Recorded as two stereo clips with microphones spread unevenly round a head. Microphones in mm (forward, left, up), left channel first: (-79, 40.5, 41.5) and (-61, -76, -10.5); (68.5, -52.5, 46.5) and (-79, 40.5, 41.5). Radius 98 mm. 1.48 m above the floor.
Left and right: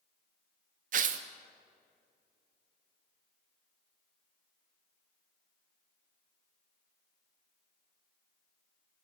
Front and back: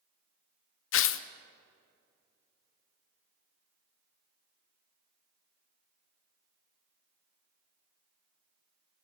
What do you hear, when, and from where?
0.9 s tearing paper: 45° right, 0.9 m